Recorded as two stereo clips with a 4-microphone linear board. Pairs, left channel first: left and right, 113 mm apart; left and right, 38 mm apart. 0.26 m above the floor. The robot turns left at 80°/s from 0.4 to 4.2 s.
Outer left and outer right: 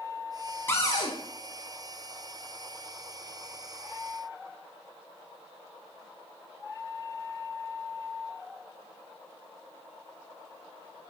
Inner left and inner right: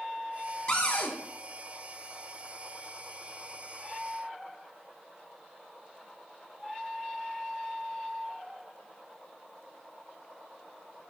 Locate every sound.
0.7 s a cupboard door: 155° left, 1.3 m; by 1.1 s 120° left, 1.3 m